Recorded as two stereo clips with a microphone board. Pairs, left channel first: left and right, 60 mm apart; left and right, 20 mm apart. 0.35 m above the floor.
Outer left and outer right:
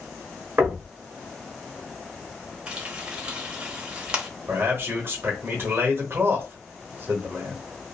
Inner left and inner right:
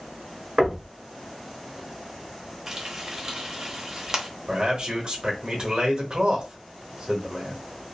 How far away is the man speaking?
About 1.1 m.